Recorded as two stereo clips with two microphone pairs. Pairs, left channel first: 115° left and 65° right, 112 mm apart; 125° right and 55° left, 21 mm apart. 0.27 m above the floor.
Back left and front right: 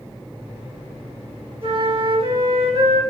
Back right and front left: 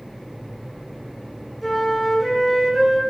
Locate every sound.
1.6 s a flute: 30° right, 3 m